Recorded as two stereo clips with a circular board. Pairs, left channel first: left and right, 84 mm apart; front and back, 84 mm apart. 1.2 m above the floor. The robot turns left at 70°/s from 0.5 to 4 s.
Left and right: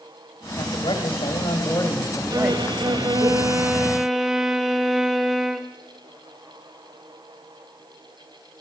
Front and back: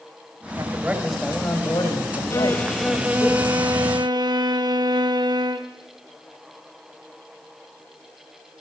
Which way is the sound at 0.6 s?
130° left.